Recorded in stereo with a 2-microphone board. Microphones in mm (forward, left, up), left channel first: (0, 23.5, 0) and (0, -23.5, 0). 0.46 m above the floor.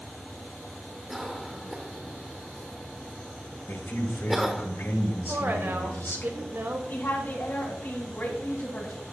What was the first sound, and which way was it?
A cough, 5° right (ahead or behind).